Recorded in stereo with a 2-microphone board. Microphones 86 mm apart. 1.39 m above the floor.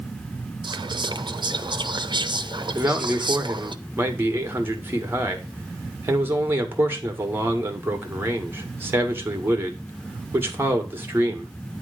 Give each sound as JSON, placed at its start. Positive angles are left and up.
{"t": 0.6, "sound": "whispering", "side_deg": -60, "distance_m": 0.7}
{"t": 2.8, "sound": "a man speaking", "side_deg": -25, "distance_m": 1.6}